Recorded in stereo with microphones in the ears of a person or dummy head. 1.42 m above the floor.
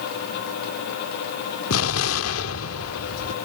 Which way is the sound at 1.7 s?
75° left (ahead or behind).